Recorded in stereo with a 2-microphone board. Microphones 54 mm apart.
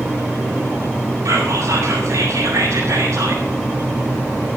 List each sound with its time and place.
1.2 s whispering: 60° right (ahead or behind), 8.5 m